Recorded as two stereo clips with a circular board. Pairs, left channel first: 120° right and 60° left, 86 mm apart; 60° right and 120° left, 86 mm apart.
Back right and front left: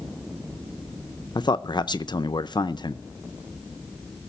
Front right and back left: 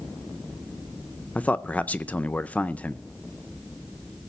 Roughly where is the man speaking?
Behind right.